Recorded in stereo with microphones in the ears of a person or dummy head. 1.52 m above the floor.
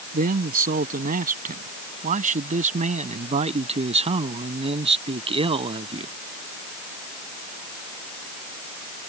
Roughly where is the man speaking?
Right.